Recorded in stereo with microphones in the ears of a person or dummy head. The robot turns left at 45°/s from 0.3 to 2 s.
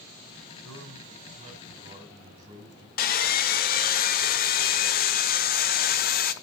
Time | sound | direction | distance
0.6 | a man speaking | 85° right | 5.5 m
3.0 | sawing | 40° left (ahead or behind) | 0.7 m